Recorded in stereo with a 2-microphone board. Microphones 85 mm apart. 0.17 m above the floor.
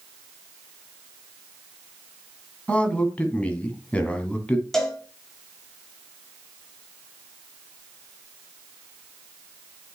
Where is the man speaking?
15° left (ahead or behind), 1.4 m.